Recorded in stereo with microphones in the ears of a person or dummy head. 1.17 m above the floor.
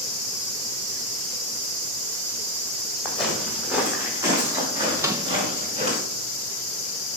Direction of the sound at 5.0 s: 10° right (ahead or behind).